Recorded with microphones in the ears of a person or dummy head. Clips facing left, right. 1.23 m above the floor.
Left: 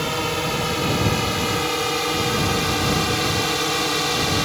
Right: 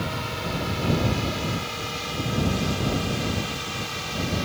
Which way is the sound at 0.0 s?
65° left (ahead or behind).